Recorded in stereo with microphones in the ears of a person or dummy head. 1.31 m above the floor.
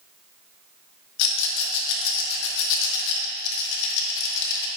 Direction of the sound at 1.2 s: 70° left (ahead or behind).